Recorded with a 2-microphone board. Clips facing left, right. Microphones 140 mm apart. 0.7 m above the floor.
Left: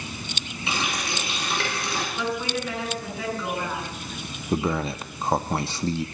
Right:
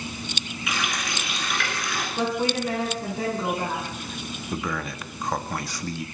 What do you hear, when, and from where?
0.7 s a running tap: 30° left (ahead or behind), 6 m
2.2 s a woman speaking: 45° right (ahead or behind), 9 m
4.5 s a man speaking: 30° left (ahead or behind), 1.3 m